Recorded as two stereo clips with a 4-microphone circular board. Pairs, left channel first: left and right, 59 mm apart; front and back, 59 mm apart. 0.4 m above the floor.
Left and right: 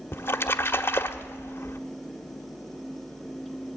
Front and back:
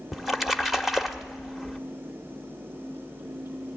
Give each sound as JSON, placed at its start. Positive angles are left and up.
{"t": 0.1, "sound": "a splash", "azimuth_deg": 95, "distance_m": 1.0}